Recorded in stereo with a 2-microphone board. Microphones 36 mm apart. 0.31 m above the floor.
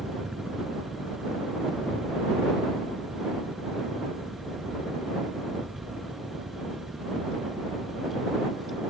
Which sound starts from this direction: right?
A helicopter, at 0.0 s.